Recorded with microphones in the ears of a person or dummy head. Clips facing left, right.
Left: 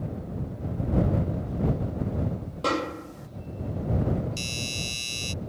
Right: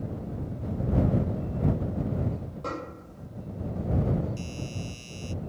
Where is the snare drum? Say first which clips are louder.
Left 11 dB; 70° left (ahead or behind).